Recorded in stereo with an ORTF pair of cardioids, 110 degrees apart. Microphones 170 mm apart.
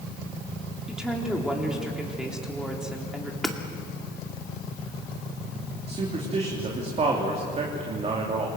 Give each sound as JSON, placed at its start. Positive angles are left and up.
{"t": 0.9, "sound": "a woman speaking", "azimuth_deg": -5, "distance_m": 3.5}
{"t": 3.4, "sound": "hammering", "azimuth_deg": 0, "distance_m": 2.5}
{"t": 5.9, "sound": "a man speaking", "azimuth_deg": -40, "distance_m": 3.5}